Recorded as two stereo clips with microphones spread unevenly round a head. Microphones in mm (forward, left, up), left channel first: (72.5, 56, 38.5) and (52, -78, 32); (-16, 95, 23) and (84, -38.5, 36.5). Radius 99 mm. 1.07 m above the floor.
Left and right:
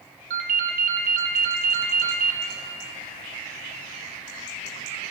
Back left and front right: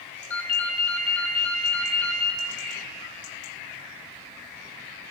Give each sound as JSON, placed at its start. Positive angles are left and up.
{"t": 0.3, "sound": "a ringtone", "azimuth_deg": -150, "distance_m": 0.6}